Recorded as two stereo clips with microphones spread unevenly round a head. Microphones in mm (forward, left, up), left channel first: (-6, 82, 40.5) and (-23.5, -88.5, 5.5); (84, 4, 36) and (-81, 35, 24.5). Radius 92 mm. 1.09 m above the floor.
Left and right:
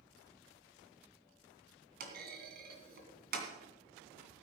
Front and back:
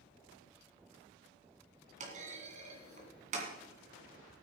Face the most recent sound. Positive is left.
turn(degrees=-135)